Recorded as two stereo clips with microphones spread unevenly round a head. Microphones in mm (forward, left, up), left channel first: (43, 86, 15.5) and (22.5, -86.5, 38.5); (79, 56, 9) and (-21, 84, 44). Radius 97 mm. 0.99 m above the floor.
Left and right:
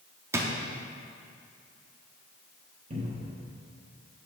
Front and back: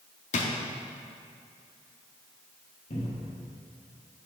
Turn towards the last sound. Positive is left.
turn(degrees=-45)